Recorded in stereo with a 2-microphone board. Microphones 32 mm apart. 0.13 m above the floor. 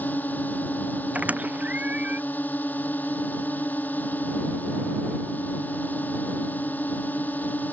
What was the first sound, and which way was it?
A drone, 60° left (ahead or behind).